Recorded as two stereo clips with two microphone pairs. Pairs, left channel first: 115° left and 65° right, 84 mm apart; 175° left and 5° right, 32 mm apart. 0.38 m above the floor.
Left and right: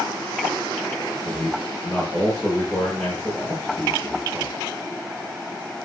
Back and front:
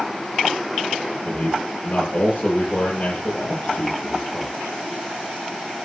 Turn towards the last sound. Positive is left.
turn(degrees=-170)